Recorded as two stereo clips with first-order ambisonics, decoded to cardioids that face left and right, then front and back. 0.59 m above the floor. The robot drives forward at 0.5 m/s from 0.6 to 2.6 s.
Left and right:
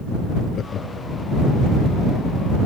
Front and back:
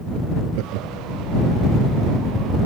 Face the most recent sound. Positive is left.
turn(degrees=155)